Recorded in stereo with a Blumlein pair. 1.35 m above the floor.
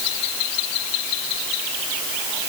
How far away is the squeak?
No squeak in this recording.